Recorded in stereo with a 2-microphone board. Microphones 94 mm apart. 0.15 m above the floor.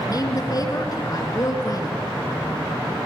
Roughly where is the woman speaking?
Left.